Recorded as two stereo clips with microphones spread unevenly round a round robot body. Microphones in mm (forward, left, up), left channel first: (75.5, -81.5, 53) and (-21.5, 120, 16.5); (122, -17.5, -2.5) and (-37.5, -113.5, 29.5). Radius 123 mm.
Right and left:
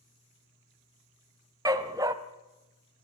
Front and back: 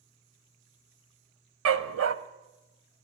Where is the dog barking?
170° right, 1.0 m.